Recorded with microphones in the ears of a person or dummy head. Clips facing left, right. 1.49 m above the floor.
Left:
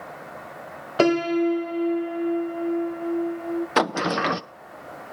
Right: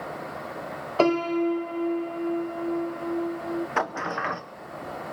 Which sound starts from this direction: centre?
A piano, at 1.0 s.